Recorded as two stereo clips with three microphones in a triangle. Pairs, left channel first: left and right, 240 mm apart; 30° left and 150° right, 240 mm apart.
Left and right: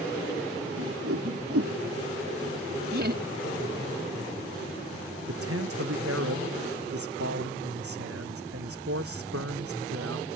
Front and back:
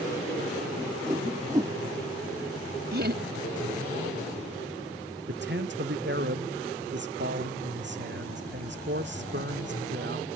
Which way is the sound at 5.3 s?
110° right.